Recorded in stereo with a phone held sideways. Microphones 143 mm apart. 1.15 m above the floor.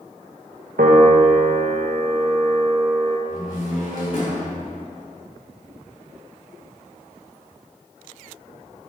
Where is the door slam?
65° left (ahead or behind), 2.5 m.